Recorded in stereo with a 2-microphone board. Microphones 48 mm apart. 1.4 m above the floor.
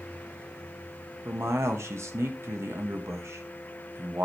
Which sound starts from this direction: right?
A man speaking, at 1.2 s.